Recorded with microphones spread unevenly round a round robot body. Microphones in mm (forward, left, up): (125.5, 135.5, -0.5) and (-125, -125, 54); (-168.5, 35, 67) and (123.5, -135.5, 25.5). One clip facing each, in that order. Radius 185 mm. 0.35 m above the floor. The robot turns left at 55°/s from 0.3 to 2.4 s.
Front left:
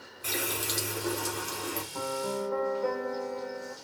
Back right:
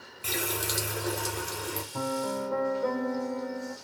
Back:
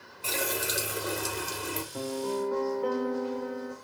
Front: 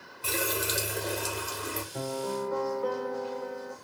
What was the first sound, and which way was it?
A running tap, 90° right.